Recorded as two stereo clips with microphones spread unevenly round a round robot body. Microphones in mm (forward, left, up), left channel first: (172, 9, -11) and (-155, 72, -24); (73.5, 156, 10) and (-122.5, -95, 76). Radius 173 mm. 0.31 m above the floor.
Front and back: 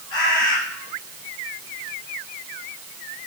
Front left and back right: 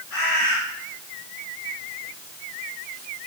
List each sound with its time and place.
0.1 s a bird: 5° right, 4.5 m